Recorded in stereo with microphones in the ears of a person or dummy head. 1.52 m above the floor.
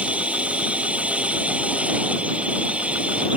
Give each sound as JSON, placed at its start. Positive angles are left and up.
{"t": 0.0, "sound": "a drone", "side_deg": -5}